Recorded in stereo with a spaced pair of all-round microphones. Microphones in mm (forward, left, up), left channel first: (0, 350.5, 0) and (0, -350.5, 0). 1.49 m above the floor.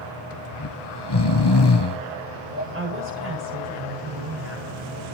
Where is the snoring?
35° left (ahead or behind), 0.8 m.